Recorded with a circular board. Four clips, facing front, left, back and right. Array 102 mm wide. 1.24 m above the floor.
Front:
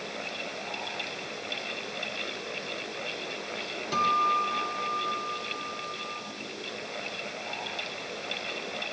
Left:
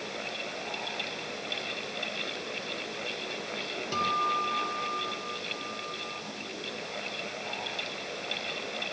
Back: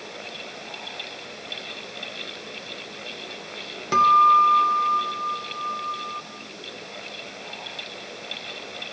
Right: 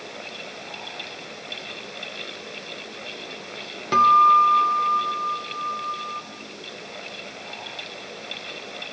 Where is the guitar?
130° right, 2 m.